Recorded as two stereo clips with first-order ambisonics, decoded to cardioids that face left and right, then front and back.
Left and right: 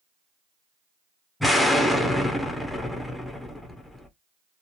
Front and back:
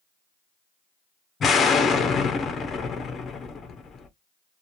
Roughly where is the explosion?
Ahead.